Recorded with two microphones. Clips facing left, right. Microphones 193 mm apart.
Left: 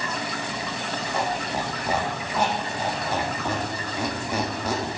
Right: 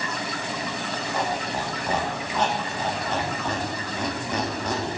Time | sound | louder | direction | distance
1.1 | a squeak | even | 10° left (ahead or behind) | 0.9 m